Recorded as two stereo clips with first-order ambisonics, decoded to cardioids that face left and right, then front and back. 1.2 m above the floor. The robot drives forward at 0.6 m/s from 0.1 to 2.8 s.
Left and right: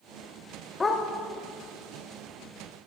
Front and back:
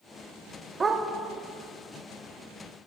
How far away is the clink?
No clink in this recording.